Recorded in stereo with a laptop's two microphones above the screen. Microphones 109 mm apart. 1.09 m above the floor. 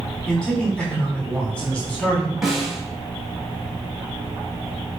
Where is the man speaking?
5° left (ahead or behind), 4 m.